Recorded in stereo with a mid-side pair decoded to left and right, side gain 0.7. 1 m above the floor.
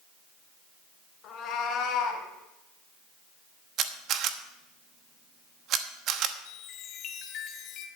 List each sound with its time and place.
1.2 s a cat meowing: 45° left, 2 m; by 2.2 s 55° left, 3 m
3.8 s a camera shutter: 50° right, 1.1 m
6.5 s a chime: 50° left, 1.7 m